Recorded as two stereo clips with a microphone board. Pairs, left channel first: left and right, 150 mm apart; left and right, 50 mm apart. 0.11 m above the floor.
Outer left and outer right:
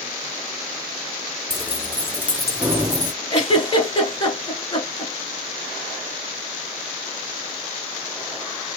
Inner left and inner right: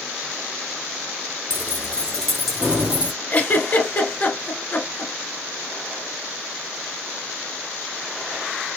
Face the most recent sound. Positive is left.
turn(degrees=35)  # may be behind; listen again after turning